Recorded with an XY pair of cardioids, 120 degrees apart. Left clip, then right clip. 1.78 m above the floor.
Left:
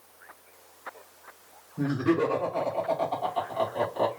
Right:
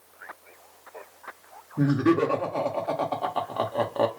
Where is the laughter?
60° right, 1.9 m.